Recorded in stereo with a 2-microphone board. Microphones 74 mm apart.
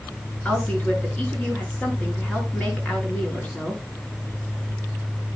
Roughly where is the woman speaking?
Centre.